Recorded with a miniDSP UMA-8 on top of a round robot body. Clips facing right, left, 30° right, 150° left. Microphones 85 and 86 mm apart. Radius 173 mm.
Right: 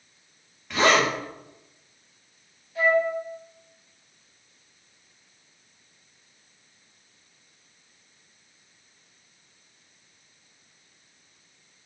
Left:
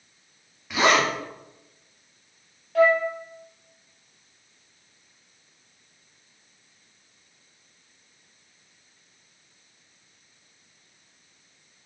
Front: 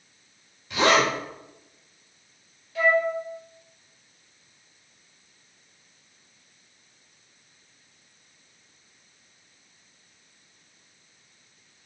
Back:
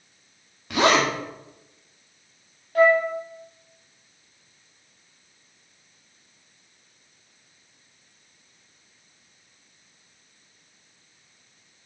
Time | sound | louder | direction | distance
0.7 | a zipper | even, back 1 dB | 175° left | 1.9 m
2.8 | a flute | left 3 dB, back 5 dB | 110° left | 1.4 m